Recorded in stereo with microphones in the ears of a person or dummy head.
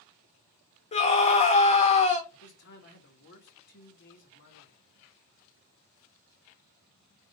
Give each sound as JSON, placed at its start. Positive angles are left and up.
{"t": 0.9, "sound": "a scream", "side_deg": 35, "distance_m": 1.6}
{"t": 2.3, "sound": "a man speaking", "side_deg": 60, "distance_m": 1.6}